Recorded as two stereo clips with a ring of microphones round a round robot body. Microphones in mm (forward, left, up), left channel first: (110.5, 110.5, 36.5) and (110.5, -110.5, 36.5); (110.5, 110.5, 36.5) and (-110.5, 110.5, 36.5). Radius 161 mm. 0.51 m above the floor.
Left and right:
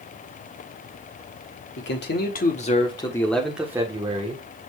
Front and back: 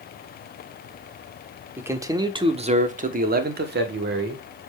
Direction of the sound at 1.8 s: 100° left.